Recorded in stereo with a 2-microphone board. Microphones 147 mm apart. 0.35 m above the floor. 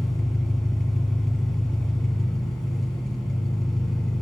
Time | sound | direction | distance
0.0 | an engine running | 5° left (ahead or behind) | 1.4 m